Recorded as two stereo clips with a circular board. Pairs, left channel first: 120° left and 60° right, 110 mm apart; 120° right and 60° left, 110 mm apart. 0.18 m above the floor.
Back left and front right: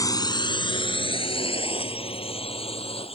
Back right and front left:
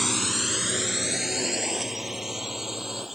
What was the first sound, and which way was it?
A drone, 150° left.